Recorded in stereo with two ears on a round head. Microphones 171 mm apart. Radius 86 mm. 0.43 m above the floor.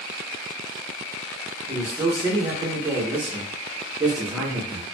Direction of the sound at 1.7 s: 15° right (ahead or behind).